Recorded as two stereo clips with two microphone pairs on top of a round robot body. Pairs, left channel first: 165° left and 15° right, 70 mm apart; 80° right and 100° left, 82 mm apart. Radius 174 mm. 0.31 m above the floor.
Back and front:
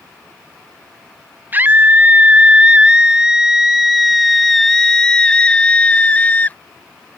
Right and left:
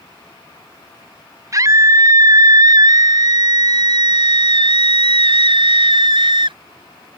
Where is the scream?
50° left; by 6.6 s 100° left.